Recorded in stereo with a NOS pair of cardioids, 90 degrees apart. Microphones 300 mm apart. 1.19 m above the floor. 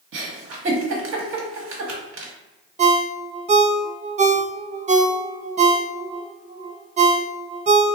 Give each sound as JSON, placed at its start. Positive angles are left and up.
{"t": 0.1, "sound": "a giggle", "azimuth_deg": -45, "distance_m": 1.2}
{"t": 2.8, "sound": "a ringtone", "azimuth_deg": -25, "distance_m": 0.6}